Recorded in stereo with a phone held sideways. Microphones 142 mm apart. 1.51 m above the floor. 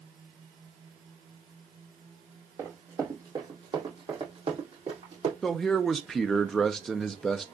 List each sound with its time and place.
2.6 s running footsteps: 20° right (ahead or behind), 3 m; by 5.3 s 50° right (ahead or behind), 3.5 m
5.4 s a man speaking: centre (ahead or behind), 0.6 m